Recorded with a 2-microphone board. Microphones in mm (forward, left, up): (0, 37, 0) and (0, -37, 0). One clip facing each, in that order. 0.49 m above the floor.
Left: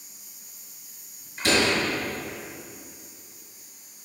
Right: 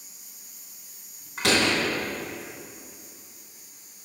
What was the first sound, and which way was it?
A door slam, 80° right.